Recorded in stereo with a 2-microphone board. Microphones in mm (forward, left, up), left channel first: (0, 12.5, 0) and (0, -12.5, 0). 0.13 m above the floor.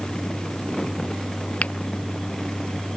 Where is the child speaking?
I don't hear a child speaking.